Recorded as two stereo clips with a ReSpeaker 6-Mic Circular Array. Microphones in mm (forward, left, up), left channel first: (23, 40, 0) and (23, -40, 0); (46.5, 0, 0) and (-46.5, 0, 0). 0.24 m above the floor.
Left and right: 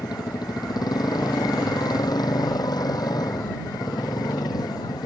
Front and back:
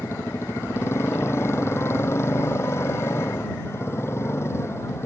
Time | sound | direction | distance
0.0 | a motorcycle | 60° left | ?